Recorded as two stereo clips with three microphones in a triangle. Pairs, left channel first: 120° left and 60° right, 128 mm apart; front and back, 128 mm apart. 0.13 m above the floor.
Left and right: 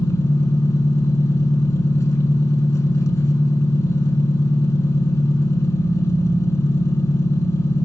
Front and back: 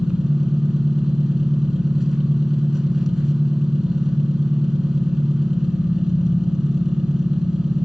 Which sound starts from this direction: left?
An engine running, at 0.0 s.